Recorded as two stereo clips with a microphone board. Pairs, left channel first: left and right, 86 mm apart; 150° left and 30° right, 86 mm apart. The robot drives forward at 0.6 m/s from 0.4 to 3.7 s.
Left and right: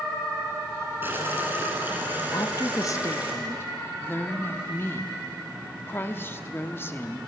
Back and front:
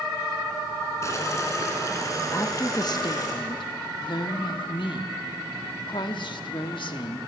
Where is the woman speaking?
105° left, 0.8 m; by 7.2 s 150° left, 1.2 m.